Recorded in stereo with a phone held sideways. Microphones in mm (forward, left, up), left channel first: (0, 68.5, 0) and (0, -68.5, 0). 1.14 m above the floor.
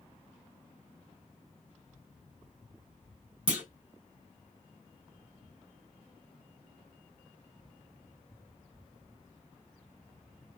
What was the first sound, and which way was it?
A clunk, 10° right (ahead or behind).